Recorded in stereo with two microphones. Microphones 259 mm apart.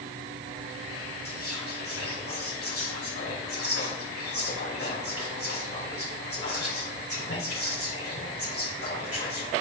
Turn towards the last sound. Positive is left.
turn(degrees=60)  # may be behind; listen again after turning